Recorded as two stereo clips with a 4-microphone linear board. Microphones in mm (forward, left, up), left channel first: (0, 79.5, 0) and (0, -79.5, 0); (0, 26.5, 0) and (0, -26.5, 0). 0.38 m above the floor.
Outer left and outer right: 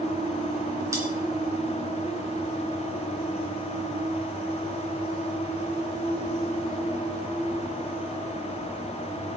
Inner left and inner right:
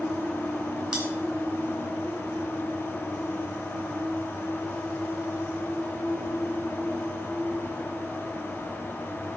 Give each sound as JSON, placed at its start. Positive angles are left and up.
{"t": 0.9, "sound": "cutlery clinking", "side_deg": -20, "distance_m": 2.5}